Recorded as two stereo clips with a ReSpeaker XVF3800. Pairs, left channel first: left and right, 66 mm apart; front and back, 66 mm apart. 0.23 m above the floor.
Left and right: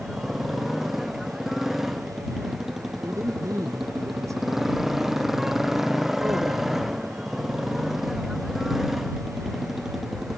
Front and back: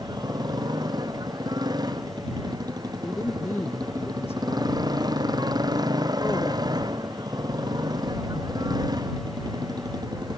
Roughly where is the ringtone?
No ringtone in this recording.